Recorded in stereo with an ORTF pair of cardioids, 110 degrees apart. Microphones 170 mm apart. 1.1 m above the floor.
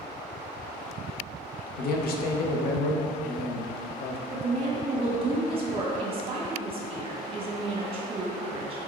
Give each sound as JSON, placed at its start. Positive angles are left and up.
{"t": 1.8, "sound": "a man speaking", "azimuth_deg": 65, "distance_m": 0.6}
{"t": 4.3, "sound": "a woman speaking", "azimuth_deg": -35, "distance_m": 1.1}